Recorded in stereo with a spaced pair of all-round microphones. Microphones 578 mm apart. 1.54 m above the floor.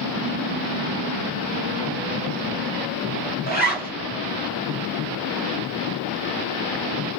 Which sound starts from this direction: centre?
A zipper, at 3.5 s.